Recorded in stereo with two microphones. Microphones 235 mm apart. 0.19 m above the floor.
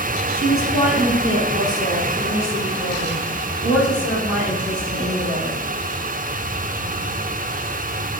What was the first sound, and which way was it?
A woman speaking, 35° left (ahead or behind).